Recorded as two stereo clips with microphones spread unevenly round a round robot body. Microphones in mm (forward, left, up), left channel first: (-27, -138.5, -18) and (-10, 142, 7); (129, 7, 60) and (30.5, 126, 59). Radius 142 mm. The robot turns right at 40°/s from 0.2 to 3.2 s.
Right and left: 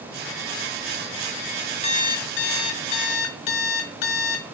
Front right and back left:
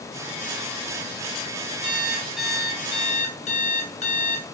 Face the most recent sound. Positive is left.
turn(degrees=-110)